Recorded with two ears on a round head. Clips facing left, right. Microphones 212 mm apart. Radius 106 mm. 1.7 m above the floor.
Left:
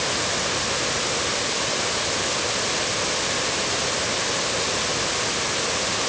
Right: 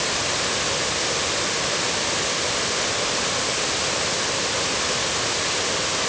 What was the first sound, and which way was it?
Only background noise.